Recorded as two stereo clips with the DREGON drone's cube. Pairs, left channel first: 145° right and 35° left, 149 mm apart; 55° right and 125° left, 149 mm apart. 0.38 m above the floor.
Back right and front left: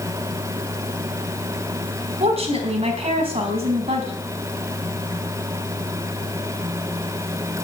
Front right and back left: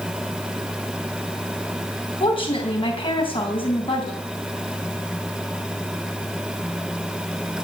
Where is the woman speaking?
5° right, 4 m.